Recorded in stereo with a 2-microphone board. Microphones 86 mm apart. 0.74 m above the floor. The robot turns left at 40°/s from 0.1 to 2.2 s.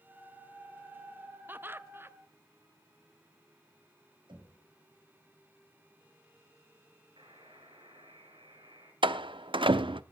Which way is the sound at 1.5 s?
25° right (ahead or behind).